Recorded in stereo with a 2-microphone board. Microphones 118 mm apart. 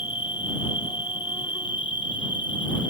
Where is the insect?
45° left (ahead or behind).